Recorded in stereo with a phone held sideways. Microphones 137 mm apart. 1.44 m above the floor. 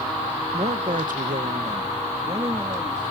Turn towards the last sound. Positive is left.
turn(degrees=-30)  # may be behind; listen again after turning